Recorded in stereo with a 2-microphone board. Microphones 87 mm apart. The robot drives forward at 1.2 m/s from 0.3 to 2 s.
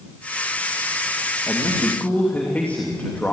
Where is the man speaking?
25° left (ahead or behind), 2.5 m; by 3.3 s 20° left (ahead or behind), 3 m.